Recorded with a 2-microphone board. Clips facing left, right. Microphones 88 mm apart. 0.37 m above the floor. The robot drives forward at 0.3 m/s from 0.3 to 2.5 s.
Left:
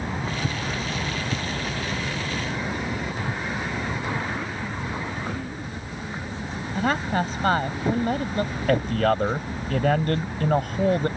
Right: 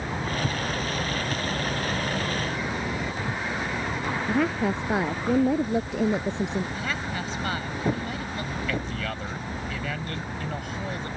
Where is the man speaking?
55° left (ahead or behind).